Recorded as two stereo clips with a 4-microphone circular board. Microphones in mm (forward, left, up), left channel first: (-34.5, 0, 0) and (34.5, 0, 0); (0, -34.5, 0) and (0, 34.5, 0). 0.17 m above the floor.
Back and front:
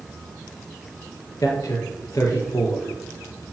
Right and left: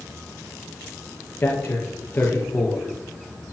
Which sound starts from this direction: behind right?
A man speaking, at 1.4 s.